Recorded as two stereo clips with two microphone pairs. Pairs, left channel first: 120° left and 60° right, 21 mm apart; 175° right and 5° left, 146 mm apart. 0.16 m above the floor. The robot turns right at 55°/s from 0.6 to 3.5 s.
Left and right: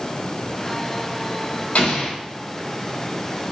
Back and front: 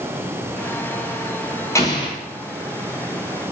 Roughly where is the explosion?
Left.